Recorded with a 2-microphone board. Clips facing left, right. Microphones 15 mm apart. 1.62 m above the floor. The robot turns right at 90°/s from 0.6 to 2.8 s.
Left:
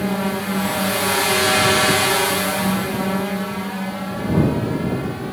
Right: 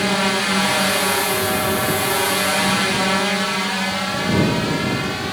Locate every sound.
0.0 s a drone: 65° right (ahead or behind); by 5.3 s 75° right (ahead or behind)